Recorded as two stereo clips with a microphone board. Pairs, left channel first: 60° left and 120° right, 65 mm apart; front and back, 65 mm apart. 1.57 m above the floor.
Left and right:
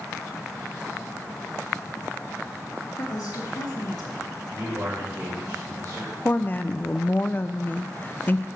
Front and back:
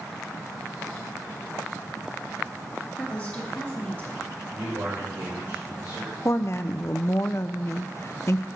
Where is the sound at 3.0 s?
70° left, 3.5 m.